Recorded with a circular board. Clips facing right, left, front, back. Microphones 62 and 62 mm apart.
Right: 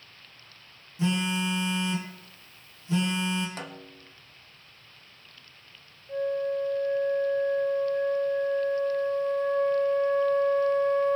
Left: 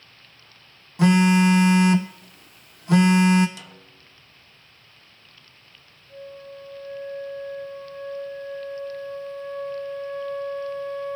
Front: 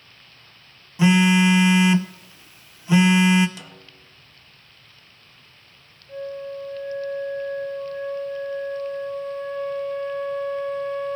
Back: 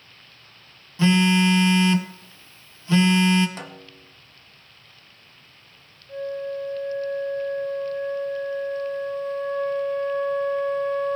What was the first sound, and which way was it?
A phone buzzing, 75° left.